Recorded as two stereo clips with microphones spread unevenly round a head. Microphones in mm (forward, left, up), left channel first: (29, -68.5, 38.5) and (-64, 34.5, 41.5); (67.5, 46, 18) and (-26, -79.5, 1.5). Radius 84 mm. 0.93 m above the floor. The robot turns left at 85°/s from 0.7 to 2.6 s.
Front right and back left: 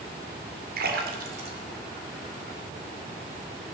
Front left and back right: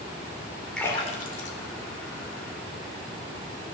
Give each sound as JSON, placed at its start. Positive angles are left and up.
{"t": 0.8, "sound": "a splash", "azimuth_deg": 140, "distance_m": 2.5}